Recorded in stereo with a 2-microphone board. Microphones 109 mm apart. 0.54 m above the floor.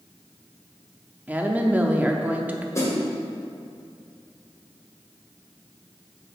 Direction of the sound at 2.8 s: 30° left (ahead or behind).